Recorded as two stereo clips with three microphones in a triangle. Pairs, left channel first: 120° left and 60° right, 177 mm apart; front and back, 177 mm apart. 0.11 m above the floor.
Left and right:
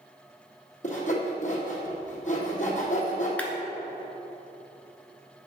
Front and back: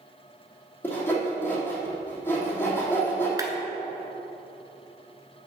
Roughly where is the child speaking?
I don't hear a child speaking.